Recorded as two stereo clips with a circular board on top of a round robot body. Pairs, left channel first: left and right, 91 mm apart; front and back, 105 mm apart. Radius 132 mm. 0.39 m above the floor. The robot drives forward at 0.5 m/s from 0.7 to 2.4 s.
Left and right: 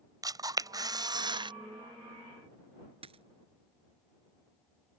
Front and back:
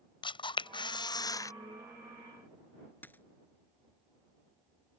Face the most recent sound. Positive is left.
turn(degrees=-75)